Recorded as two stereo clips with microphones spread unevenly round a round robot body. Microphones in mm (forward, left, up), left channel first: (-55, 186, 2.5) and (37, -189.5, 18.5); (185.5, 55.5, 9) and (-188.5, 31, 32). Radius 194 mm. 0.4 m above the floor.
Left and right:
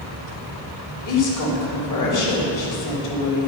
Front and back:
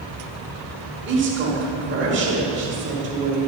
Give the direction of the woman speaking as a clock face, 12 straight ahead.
8 o'clock.